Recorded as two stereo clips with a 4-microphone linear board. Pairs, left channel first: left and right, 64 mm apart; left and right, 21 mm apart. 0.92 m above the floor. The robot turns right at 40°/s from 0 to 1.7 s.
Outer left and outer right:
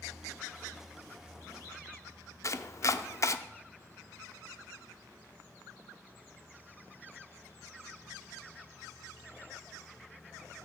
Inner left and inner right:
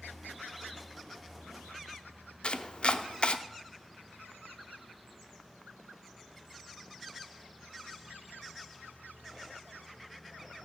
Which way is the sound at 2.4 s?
50° left (ahead or behind).